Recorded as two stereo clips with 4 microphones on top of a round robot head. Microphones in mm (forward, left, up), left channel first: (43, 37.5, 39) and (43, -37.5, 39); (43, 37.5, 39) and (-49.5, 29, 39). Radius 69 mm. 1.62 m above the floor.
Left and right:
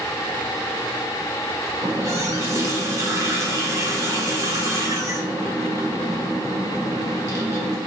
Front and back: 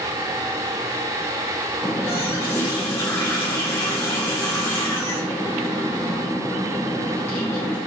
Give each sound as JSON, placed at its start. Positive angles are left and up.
{"t": 1.8, "sound": "a running tap", "azimuth_deg": -60, "distance_m": 0.8}